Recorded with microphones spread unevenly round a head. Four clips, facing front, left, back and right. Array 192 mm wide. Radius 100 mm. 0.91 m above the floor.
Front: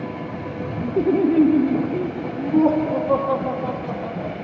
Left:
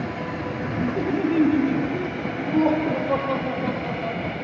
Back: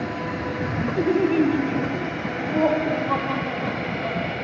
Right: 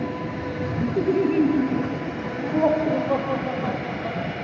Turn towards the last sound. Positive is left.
turn(degrees=25)